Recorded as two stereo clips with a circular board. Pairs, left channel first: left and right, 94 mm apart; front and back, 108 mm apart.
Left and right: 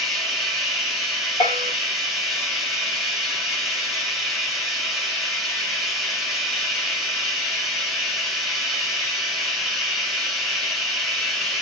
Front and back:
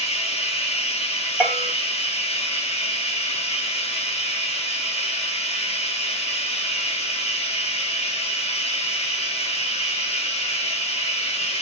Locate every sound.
0.0 s running water: straight ahead, 0.7 m
1.4 s a bell: 105° left, 1.2 m